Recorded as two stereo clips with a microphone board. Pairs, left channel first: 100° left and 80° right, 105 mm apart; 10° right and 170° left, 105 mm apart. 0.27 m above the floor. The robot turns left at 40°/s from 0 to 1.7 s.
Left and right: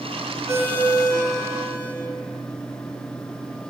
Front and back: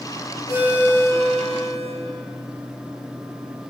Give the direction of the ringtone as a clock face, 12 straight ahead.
5 o'clock.